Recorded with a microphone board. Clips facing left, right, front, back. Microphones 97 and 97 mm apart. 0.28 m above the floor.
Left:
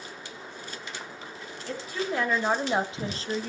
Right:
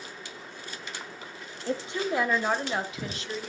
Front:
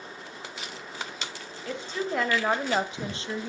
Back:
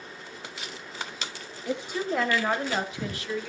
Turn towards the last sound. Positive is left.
turn(degrees=55)